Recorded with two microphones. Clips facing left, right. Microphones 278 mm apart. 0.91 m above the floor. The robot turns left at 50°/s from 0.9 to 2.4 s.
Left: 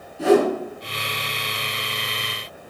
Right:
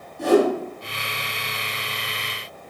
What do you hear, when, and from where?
0.2 s a whoosh: 5° left (ahead or behind), 4 m